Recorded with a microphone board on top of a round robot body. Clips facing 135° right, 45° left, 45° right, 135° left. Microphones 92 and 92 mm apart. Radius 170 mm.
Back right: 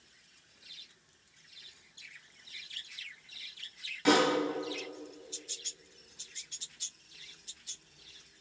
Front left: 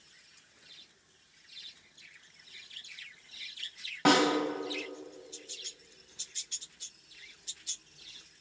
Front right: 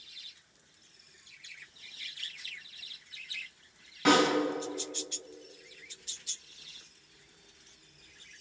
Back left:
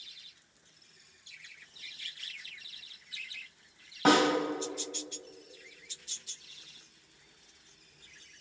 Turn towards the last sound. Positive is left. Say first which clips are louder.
# front left 1 dB, even
turn(degrees=80)